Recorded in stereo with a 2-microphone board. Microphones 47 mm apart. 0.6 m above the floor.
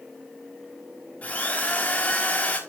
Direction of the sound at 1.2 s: 35° left (ahead or behind).